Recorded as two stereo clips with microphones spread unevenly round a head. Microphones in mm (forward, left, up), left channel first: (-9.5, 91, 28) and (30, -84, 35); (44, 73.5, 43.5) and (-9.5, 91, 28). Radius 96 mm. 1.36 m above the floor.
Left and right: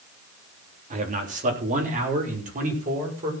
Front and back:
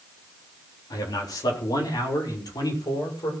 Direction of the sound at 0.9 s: 30° right.